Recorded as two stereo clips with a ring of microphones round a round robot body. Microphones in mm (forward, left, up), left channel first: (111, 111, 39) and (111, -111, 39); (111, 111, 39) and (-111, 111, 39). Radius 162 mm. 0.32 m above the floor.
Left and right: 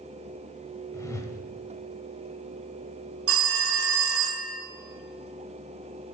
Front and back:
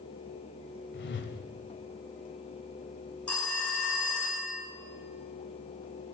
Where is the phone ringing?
85° right, 1.6 m.